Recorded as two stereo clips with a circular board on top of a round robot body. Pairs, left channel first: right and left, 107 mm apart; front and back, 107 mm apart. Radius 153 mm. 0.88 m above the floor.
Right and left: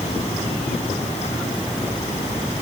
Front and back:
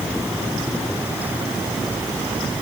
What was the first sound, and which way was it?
Only background noise.